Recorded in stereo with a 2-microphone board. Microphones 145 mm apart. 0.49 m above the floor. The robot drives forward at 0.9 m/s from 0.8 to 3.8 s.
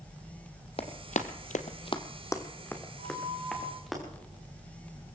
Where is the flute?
40° right (ahead or behind), 6 m; by 3.8 s 35° right (ahead or behind), 6.5 m.